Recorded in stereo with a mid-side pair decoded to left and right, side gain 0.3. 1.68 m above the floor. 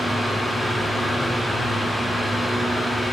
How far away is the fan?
About 1.3 m.